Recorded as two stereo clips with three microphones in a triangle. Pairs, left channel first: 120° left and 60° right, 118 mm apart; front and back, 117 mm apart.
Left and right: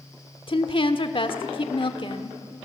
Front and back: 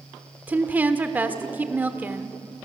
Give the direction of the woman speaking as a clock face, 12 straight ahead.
8 o'clock.